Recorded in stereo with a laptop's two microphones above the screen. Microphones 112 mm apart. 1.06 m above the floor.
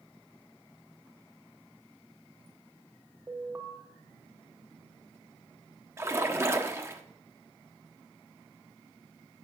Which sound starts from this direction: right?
A splash, at 6.0 s.